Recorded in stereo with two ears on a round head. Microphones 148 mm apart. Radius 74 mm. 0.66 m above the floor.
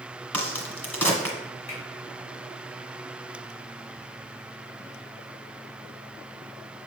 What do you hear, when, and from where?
0.3 s a crack: 10° left (ahead or behind), 1.5 m
1.7 s a finger snap: 45° left (ahead or behind), 3 m